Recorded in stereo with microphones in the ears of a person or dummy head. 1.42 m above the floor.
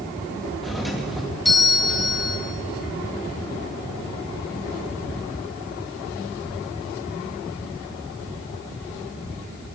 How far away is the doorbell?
About 2.5 m.